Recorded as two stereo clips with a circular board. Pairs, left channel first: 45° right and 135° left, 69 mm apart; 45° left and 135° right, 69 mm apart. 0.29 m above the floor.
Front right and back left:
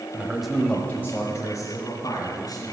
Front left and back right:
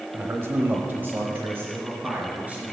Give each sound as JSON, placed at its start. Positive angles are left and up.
{"t": 0.1, "sound": "a man speaking", "azimuth_deg": -170, "distance_m": 1.1}